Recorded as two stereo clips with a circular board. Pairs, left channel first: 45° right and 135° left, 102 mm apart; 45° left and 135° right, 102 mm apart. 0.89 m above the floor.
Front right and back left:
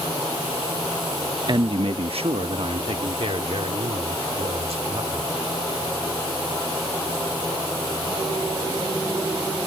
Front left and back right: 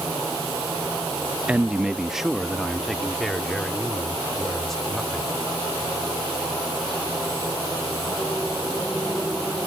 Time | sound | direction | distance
1.5 | a man speaking | 150° left | ?